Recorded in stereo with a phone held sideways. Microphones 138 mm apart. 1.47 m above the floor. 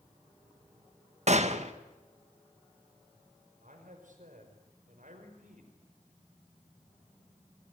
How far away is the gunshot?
About 1.7 m.